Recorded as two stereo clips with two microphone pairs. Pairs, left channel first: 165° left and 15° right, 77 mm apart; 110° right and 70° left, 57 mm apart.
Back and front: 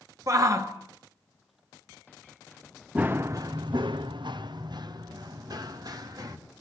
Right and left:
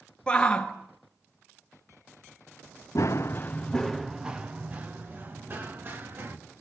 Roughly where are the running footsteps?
Right.